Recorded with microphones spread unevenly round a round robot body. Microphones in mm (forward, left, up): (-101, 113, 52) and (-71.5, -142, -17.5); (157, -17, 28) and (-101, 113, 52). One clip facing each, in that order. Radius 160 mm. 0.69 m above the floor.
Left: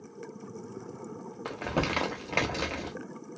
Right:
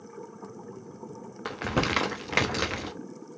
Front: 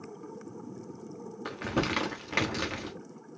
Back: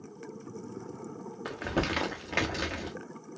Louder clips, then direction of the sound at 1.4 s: Right 2 dB, front 1 dB; 90° right.